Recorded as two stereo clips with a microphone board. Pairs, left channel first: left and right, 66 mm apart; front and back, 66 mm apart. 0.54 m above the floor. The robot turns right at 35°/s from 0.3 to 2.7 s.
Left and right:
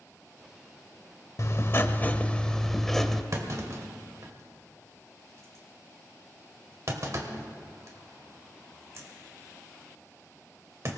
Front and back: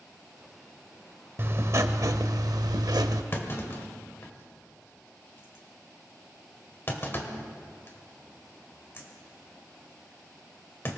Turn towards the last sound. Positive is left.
turn(degrees=-50)